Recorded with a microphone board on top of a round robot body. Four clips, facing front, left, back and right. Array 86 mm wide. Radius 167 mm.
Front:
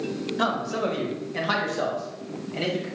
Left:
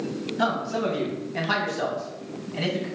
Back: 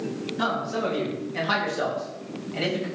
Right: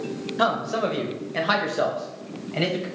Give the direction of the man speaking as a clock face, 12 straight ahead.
2 o'clock.